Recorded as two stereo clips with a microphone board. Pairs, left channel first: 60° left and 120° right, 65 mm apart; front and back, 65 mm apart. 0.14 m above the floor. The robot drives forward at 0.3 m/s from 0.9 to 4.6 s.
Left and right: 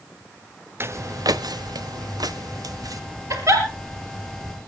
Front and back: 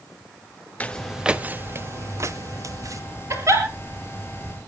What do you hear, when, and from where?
0.8 s footsteps: 70° right, 0.7 m; by 3.0 s 145° right, 2.5 m
3.3 s a giggle: 145° right, 3.5 m; by 3.6 s 150° right, 3.5 m